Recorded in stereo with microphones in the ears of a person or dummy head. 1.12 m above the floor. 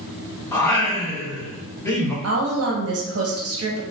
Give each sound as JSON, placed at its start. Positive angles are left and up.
{"t": 0.5, "sound": "singing", "side_deg": 15, "distance_m": 0.7}
{"t": 2.2, "sound": "a woman speaking", "side_deg": -70, "distance_m": 0.7}